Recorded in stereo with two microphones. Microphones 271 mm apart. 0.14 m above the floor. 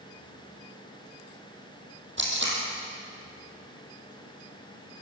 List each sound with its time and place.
2.2 s tape being pulled: 45° right (ahead or behind), 5 m